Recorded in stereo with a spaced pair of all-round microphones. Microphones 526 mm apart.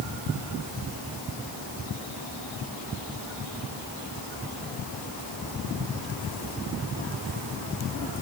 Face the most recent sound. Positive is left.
No sound to turn to.